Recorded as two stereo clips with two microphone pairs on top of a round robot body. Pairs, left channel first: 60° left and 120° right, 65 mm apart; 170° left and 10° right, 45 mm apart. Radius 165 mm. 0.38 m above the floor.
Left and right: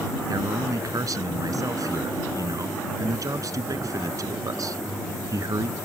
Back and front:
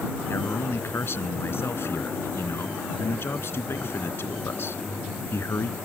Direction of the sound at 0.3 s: 155° right.